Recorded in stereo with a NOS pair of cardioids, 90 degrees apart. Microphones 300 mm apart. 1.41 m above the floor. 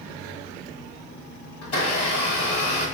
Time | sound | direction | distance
1.6 | a blender | 55° left | 1.4 m